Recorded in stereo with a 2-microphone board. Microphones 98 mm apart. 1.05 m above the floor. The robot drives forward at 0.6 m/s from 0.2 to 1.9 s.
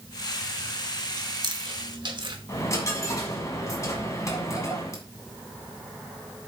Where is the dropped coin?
35° left (ahead or behind), 1.9 m.